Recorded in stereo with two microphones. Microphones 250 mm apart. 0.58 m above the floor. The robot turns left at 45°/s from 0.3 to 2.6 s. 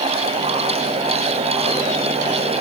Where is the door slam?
No door slam in this recording.